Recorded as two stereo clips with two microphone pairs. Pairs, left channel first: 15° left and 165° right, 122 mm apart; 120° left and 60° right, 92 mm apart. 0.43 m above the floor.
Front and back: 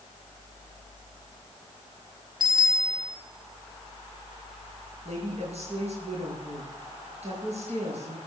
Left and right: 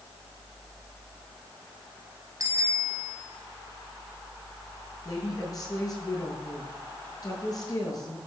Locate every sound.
2.4 s a bicycle bell: 115° right, 2.5 m
5.0 s a woman speaking: 165° left, 8 m